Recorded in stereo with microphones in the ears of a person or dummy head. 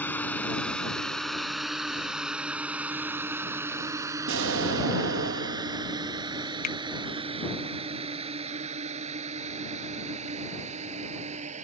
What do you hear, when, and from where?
0.0 s a drone: 15° left (ahead or behind); by 11.6 s 35° right (ahead or behind)
4.3 s an explosion: 80° right
6.6 s a finger snap: 50° left (ahead or behind)